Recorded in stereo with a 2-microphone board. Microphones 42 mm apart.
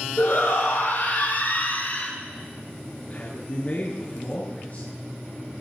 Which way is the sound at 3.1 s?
35° left (ahead or behind).